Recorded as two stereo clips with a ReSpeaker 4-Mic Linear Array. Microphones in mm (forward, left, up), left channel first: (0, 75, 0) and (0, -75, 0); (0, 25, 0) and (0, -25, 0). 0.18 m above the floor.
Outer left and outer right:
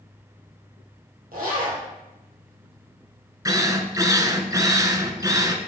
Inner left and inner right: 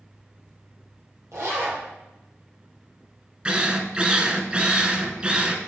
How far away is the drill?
About 0.8 m.